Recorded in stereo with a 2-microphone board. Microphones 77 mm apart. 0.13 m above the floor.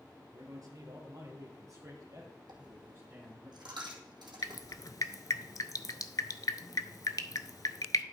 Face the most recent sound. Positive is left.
turn(degrees=55)  # may be behind; listen again after turning